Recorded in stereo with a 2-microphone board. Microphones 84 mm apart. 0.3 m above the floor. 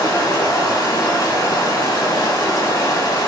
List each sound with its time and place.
0.0 s running water: 50° left (ahead or behind), 0.9 m